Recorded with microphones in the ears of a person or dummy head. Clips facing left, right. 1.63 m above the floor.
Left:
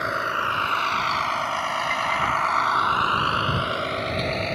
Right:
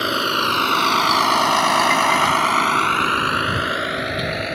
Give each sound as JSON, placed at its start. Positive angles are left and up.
{"t": 0.0, "sound": "a vehicle", "side_deg": -45}